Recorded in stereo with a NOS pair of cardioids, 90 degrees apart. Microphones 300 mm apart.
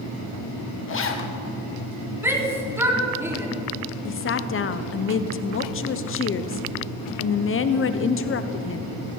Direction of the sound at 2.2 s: 10° right.